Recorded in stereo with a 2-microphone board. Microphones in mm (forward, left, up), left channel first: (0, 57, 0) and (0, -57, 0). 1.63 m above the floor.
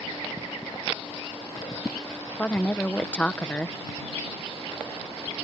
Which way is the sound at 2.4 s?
10° left (ahead or behind).